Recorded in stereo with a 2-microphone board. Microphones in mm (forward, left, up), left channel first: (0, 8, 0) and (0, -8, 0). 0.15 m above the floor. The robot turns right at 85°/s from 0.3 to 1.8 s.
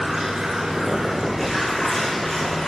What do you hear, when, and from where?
0.0 s running water: 70° right, 5.5 m; by 2.7 s 55° left, 5.5 m